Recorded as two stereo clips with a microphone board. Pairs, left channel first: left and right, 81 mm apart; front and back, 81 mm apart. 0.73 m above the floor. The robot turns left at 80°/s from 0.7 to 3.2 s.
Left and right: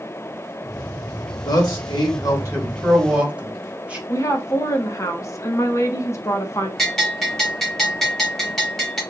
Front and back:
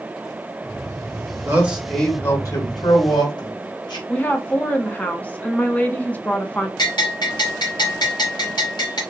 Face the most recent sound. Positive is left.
turn(degrees=5)